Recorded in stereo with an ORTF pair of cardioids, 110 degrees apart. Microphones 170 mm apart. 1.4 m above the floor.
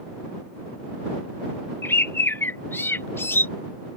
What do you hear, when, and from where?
1.8 s a bird: 15° left